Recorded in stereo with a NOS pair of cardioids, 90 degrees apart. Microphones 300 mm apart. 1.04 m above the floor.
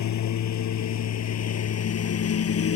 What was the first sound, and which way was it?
A lawn mower, 70° left.